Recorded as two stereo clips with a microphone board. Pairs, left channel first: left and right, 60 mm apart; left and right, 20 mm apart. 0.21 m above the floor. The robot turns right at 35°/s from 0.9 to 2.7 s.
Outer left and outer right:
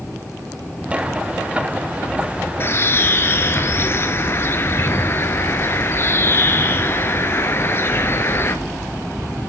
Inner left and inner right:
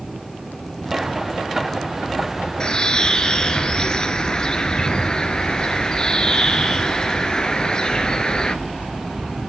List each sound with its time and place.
2.6 s a bird: 40° left (ahead or behind), 0.9 m; by 8.6 s 45° left (ahead or behind), 0.9 m